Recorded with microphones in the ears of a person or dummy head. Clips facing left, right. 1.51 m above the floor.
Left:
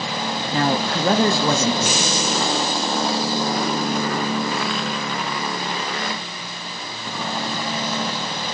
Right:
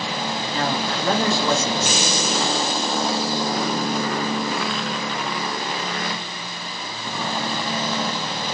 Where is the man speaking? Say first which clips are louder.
Left 5 dB; 40° left (ahead or behind), 0.6 m.